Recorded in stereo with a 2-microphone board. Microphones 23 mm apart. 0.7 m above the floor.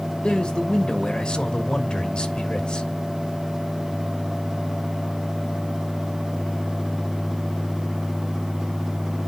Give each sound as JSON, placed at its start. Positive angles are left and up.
{"t": 0.2, "sound": "a man speaking", "side_deg": 35, "distance_m": 2.5}